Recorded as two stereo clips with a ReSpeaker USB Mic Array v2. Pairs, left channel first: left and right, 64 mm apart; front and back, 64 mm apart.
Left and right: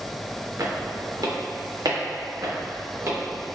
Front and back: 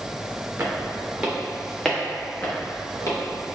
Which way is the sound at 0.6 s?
125° right.